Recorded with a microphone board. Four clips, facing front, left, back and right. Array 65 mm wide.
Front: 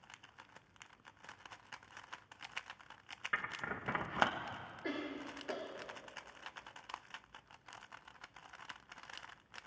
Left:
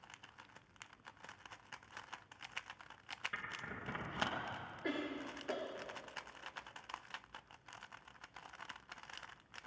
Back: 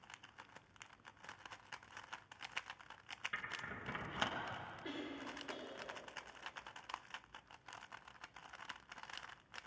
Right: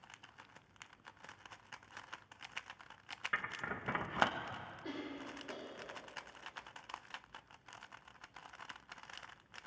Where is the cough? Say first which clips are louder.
Left 5 dB, front 7 dB; 50° left, 2.5 m.